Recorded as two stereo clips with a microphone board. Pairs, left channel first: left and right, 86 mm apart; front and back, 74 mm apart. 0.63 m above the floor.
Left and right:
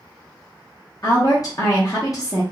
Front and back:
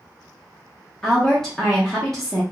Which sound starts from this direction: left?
A woman speaking, at 1.0 s.